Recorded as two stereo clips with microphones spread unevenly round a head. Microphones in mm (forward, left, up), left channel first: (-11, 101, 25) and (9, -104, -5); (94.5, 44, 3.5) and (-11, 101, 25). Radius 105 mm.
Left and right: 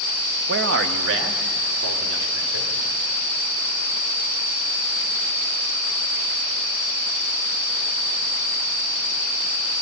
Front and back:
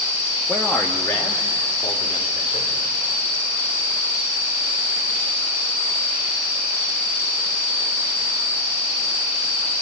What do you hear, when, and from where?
0.5 s a man speaking: 120° right, 1.3 m; by 2.7 s 100° right, 3.5 m